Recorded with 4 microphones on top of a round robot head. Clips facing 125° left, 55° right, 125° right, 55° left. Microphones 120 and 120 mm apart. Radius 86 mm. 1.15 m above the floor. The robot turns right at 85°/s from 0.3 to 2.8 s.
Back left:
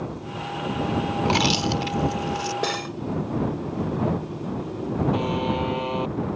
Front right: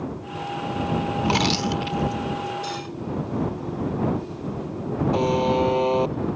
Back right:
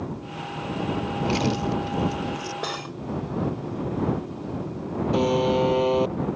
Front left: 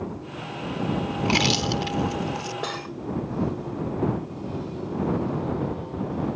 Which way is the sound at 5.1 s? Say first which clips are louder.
Front right 4 dB, back right 6 dB; 115° right.